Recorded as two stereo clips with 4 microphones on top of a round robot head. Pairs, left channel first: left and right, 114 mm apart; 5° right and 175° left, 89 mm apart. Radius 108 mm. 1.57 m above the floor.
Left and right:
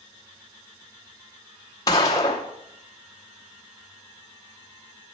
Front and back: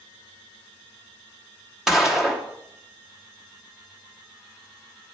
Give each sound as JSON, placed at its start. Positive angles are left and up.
{"t": 1.9, "sound": "a gunshot", "azimuth_deg": 95, "distance_m": 0.6}